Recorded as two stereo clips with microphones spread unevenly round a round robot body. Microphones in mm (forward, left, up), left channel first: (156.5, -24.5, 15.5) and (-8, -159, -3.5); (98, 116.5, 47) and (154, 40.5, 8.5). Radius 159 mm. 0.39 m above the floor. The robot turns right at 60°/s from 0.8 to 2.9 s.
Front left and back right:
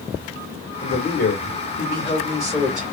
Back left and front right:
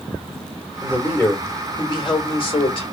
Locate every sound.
0.8 s a man speaking: 20° left, 1.5 m; by 2.8 s 145° left, 1.5 m